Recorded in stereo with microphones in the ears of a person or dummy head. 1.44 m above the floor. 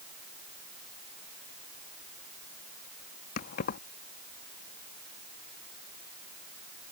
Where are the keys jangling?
50° left (ahead or behind).